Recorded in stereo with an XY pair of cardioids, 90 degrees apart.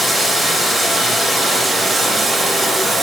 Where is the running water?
50° right, 3.5 m.